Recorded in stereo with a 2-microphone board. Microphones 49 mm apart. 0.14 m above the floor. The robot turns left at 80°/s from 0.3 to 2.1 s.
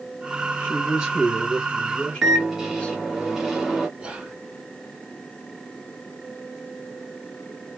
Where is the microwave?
10° right (ahead or behind), 1.0 m.